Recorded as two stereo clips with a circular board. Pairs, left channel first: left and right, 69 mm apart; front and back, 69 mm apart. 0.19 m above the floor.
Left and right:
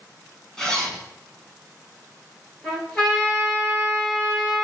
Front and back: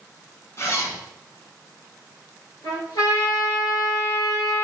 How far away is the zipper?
About 0.8 m.